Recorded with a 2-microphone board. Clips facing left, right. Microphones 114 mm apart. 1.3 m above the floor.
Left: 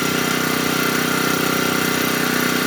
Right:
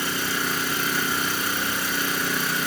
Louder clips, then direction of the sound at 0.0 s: Left 8 dB; 70° left (ahead or behind).